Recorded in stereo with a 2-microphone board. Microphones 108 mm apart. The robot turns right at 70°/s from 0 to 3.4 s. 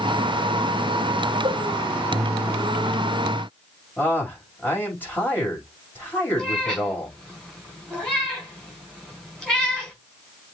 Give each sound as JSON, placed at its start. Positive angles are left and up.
{"t": 1.4, "sound": "a cowbell", "side_deg": -65, "distance_m": 2.0}
{"t": 4.0, "sound": "a man speaking", "side_deg": 20, "distance_m": 6.0}
{"t": 6.4, "sound": "a cat meowing", "side_deg": 10, "distance_m": 4.5}